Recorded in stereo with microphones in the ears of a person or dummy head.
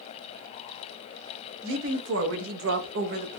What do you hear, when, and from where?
1.6 s a woman speaking: 65° right (ahead or behind), 1.1 m; by 3.4 s 40° right (ahead or behind), 0.6 m